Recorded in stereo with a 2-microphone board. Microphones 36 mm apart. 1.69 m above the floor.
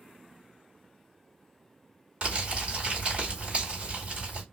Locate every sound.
2.2 s crumpling: 35° right (ahead or behind), 2.0 m